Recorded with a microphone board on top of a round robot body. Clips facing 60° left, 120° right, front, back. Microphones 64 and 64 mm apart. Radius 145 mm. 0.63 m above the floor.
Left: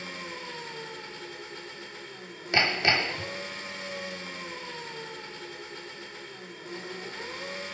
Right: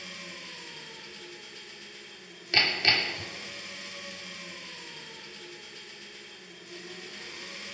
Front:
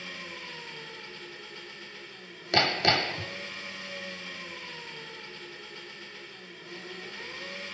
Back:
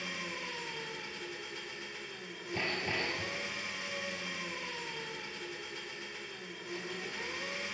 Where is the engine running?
105° left, 2 m.